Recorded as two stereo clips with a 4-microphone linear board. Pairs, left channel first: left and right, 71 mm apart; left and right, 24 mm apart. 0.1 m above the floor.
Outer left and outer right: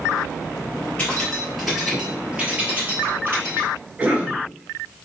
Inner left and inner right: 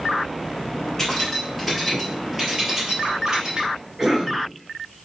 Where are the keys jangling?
15° left (ahead or behind), 1.8 m; by 3.7 s 40° right (ahead or behind), 2 m.